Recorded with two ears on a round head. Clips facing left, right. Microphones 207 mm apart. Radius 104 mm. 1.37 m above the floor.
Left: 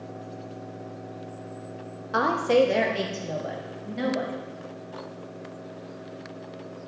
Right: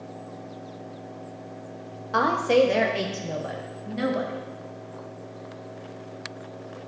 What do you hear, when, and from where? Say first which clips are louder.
2.1 s a woman speaking: right 1 dB; 5° left (ahead or behind), 0.9 m; by 4.4 s 5° right (ahead or behind), 2 m